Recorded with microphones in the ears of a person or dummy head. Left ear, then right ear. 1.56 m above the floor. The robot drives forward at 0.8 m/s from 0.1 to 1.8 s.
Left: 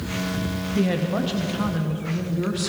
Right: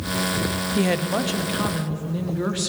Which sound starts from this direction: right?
A woman speaking, at 0.8 s.